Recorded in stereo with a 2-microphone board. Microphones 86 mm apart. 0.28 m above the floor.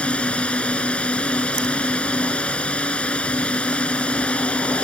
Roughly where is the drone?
Centre.